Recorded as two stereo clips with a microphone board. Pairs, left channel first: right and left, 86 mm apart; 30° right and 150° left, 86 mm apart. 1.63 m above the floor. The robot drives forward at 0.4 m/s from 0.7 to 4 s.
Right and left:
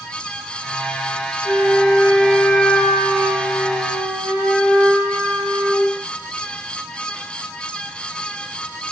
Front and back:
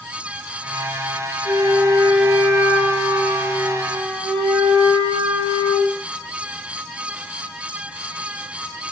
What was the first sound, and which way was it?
A flute, 170° left.